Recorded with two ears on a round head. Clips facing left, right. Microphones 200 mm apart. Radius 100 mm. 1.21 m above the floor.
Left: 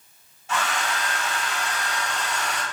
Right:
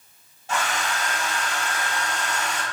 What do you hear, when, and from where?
0.5 s a hair dryer: 35° right (ahead or behind), 1.9 m